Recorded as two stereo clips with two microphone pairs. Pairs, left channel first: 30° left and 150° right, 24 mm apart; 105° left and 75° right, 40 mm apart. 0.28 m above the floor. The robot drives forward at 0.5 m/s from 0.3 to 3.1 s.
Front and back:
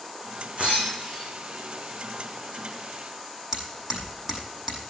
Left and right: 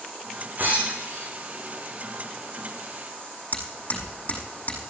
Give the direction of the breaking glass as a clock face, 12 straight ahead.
4 o'clock.